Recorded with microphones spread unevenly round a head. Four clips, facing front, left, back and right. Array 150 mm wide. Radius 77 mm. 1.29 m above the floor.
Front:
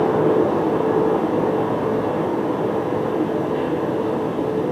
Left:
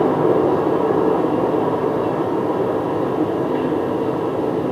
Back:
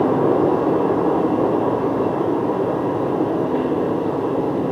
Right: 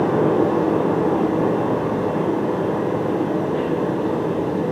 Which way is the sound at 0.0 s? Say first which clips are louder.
Left 2 dB, back 1 dB; 120° left.